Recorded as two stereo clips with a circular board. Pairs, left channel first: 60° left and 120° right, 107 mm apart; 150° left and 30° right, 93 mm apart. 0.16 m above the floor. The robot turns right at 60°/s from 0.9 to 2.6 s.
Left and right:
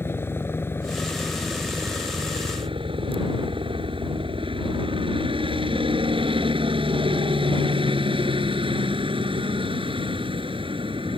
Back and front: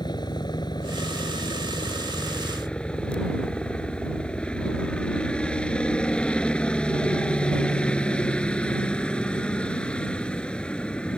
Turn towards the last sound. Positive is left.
turn(degrees=-135)